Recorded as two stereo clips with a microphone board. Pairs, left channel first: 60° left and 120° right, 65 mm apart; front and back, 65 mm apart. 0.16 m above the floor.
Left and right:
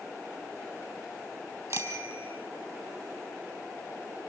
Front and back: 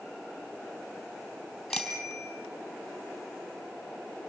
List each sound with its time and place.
1.7 s a bicycle bell: 85° right, 3.5 m